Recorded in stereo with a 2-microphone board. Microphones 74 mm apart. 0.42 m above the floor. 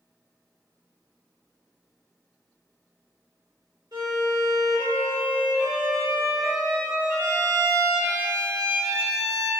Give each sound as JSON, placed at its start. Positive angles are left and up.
{"t": 3.9, "sound": "a violin", "side_deg": -70, "distance_m": 1.1}